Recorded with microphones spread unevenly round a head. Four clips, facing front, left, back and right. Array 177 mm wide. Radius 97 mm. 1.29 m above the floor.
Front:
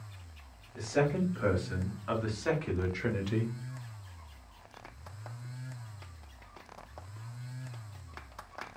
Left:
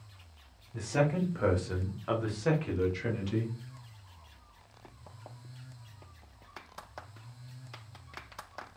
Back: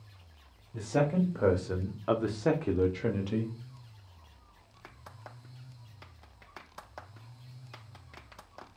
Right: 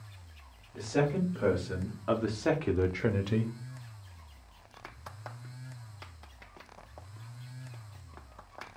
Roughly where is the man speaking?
Behind.